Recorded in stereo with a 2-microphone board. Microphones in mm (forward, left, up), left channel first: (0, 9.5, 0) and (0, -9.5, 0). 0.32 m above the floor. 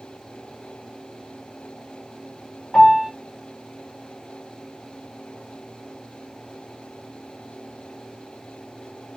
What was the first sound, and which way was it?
A piano, 55° left (ahead or behind).